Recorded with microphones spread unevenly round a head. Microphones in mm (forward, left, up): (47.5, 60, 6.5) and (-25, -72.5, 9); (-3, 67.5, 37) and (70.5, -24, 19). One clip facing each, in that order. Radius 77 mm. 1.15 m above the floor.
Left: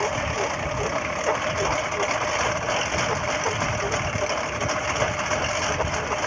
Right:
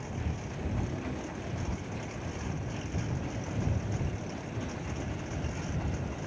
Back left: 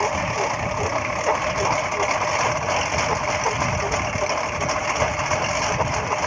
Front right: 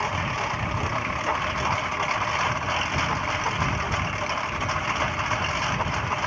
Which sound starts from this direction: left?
A lawn mower, at 0.0 s.